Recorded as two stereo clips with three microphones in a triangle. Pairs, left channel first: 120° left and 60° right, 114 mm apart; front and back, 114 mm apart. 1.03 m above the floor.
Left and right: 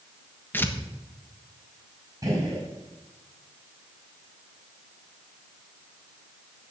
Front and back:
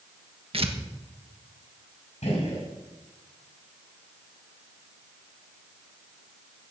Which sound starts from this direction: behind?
Tearing paper, at 0.5 s.